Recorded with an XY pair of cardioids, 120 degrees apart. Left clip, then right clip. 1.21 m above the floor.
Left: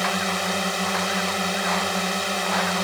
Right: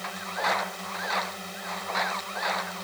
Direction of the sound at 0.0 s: 70° left.